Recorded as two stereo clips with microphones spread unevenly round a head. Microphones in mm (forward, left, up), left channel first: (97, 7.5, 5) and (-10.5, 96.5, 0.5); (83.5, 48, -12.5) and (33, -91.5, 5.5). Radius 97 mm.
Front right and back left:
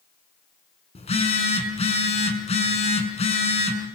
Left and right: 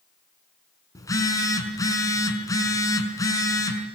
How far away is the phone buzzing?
About 5 m.